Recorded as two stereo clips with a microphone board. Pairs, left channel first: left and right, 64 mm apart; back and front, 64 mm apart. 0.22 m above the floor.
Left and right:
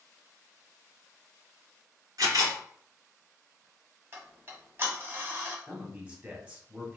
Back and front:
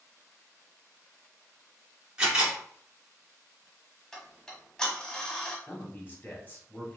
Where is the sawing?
I don't hear sawing.